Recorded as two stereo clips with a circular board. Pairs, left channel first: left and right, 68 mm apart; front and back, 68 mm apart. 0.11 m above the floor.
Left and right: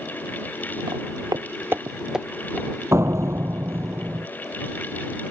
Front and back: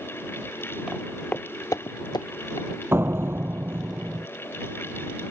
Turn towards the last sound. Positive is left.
turn(degrees=-130)